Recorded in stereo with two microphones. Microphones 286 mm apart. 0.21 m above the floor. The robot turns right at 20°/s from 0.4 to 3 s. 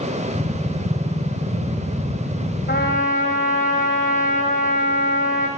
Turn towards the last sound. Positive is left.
turn(degrees=25)  # may be behind; listen again after turning